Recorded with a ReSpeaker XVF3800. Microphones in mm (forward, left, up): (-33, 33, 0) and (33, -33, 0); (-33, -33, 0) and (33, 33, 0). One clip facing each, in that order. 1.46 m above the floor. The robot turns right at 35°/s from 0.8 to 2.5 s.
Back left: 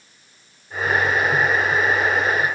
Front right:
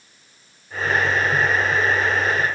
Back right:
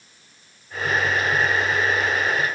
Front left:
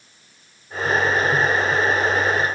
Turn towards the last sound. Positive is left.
No sound to turn to.